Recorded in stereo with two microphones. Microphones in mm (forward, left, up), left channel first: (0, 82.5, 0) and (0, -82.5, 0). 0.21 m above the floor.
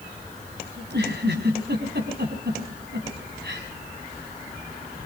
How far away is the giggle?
About 5 m.